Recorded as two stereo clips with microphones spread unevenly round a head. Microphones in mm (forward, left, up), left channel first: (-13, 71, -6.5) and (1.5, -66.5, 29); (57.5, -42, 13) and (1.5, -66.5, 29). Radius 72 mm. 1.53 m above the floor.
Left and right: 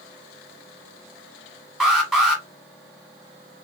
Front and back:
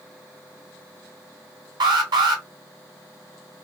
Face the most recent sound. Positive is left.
turn(degrees=-170)